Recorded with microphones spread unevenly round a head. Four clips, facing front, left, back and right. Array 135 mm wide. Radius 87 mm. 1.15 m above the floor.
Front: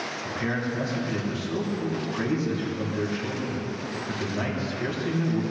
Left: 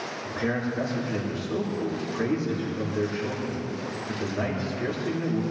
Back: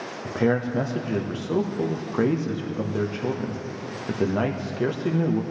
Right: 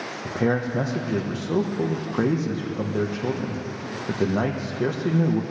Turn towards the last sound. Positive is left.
turn(degrees=-125)